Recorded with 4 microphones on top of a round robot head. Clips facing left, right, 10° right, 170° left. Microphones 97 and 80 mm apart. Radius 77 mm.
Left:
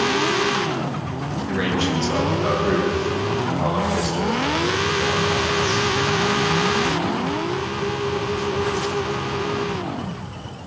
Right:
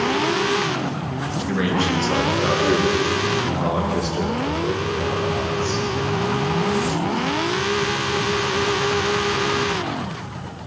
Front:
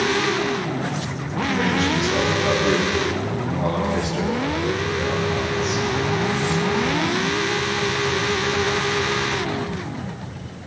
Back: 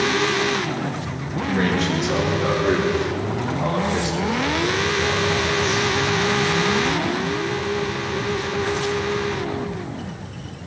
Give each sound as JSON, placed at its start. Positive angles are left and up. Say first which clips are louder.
{"t": 1.5, "sound": "a man speaking", "louder": "right 1 dB, even", "azimuth_deg": -140, "distance_m": 9.0}